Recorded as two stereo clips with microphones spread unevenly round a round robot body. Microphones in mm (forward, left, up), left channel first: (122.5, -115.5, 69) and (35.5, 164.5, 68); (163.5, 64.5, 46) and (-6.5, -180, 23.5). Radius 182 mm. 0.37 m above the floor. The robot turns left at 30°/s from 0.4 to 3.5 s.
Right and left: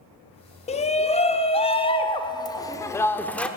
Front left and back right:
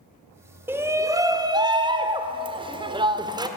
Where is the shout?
70° right, 0.8 m; by 3.5 s 155° right, 0.8 m.